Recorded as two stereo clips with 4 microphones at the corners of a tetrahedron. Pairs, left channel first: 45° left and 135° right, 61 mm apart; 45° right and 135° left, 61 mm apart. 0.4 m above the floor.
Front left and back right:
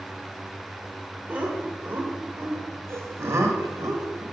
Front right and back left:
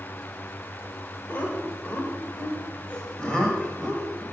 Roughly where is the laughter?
Right.